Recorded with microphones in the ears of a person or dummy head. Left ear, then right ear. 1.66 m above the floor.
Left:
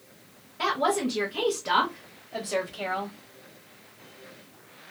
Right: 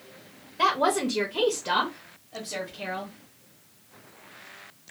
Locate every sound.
0.6 s a woman speaking: 45° right (ahead or behind), 0.8 m; by 3.2 s 55° left (ahead or behind), 1.0 m